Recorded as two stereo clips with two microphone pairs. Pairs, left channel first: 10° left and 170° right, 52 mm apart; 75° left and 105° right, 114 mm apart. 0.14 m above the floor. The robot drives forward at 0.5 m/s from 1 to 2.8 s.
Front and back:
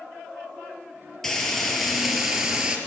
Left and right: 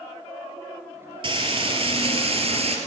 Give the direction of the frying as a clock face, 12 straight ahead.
2 o'clock.